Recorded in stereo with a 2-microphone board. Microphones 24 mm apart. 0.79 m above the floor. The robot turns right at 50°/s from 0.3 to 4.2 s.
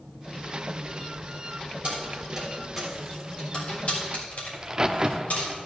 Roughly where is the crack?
Right.